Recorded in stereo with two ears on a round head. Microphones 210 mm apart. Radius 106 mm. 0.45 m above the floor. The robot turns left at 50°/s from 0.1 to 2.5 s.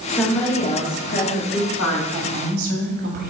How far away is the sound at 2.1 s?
About 2.5 m.